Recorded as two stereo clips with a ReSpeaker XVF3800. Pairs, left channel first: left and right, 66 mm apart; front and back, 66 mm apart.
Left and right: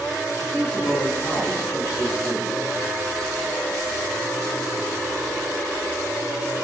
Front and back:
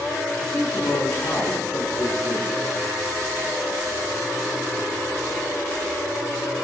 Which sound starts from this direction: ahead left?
A man speaking, at 0.4 s.